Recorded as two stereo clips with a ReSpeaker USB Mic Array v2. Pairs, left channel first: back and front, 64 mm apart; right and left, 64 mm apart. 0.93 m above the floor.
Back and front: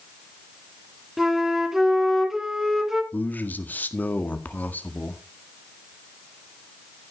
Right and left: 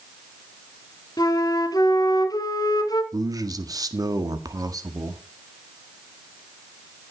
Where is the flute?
85° right, 1.7 m.